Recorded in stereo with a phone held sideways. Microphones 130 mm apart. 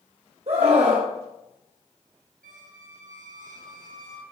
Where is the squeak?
85° right, 1.0 m.